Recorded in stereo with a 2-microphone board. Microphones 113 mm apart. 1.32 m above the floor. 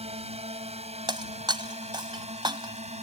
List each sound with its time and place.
0.0 s a drone: 65° right (ahead or behind); by 3.0 s 70° right (ahead or behind)
1.1 s breaking glass: 40° right (ahead or behind)